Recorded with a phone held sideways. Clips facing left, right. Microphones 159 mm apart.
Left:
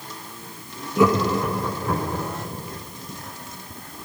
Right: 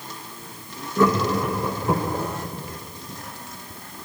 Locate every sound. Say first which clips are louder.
1.0 s laughter: left 1 dB; 10° left (ahead or behind), 1.3 m; by 2.3 s 35° right (ahead or behind), 0.9 m